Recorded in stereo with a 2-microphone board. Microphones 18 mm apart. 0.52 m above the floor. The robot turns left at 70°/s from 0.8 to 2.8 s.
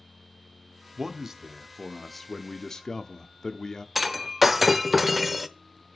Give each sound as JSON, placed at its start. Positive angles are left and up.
{"t": 1.0, "sound": "a man speaking", "azimuth_deg": -105, "distance_m": 0.8}
{"t": 4.0, "sound": "breaking glass", "side_deg": -15, "distance_m": 0.5}